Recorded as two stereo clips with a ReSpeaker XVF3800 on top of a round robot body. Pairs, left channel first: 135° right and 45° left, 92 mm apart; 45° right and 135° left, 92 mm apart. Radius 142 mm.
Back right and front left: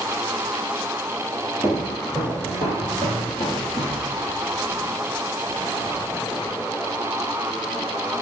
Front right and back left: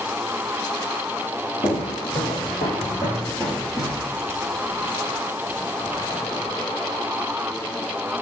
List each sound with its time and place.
1.6 s footsteps: 50° right, 2.5 m; by 4.1 s 160° right, 1.5 m